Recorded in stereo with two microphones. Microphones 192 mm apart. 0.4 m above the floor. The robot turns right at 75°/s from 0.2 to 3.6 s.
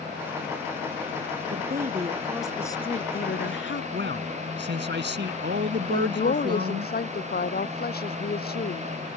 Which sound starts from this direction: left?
A woman speaking, at 5.9 s.